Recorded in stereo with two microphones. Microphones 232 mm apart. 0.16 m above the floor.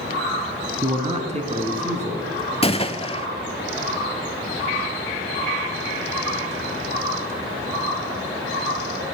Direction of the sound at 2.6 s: 25° left (ahead or behind).